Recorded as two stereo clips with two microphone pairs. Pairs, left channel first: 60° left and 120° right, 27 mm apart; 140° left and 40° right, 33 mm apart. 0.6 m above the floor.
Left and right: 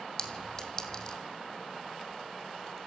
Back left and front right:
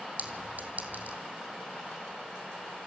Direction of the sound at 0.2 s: 10° right.